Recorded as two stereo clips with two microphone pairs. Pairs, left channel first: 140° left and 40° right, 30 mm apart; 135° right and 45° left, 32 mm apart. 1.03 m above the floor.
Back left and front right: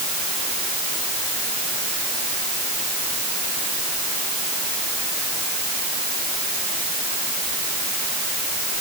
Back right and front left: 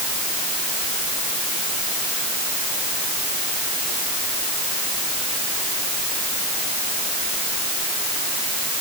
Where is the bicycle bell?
I don't hear a bicycle bell.